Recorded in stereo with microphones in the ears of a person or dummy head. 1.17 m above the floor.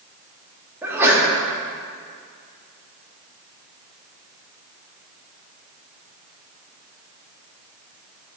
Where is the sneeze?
15° right (ahead or behind), 2 m.